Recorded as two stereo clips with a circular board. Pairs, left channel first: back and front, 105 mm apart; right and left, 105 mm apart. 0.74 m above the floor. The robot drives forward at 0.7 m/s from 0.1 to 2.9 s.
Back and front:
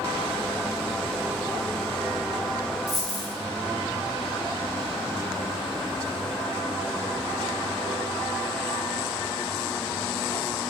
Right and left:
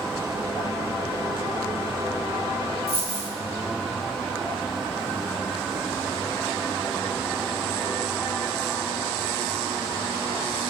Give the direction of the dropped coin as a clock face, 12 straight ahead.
9 o'clock.